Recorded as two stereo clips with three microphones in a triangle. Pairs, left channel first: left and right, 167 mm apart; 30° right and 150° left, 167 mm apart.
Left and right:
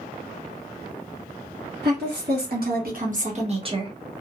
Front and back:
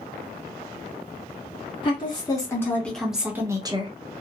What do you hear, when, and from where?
1.8 s a woman speaking: 90° right, 1.3 m; by 3.9 s 155° right, 0.9 m